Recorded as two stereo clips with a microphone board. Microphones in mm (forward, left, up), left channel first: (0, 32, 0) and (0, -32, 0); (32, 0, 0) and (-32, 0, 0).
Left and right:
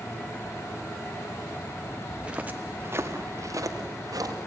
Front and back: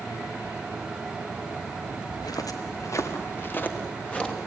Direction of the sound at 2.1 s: 10° right.